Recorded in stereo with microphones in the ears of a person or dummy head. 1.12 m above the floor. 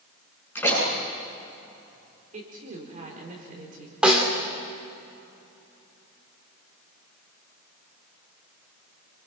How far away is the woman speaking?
About 4 m.